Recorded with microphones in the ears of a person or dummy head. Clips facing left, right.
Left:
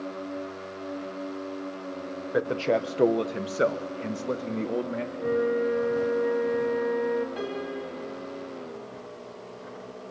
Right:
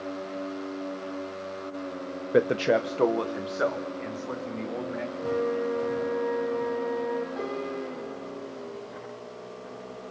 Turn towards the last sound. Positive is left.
turn(degrees=40)  # may be behind; listen again after turning